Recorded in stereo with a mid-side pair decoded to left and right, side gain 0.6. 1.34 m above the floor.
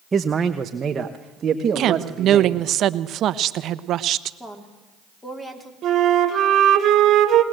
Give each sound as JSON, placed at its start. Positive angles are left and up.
{"t": 0.1, "sound": "a man speaking", "azimuth_deg": -25, "distance_m": 0.8}
{"t": 1.8, "sound": "a woman speaking", "azimuth_deg": -55, "distance_m": 1.0}
{"t": 4.4, "sound": "a woman speaking", "azimuth_deg": 10, "distance_m": 3.0}
{"t": 5.8, "sound": "a flute", "azimuth_deg": -50, "distance_m": 1.8}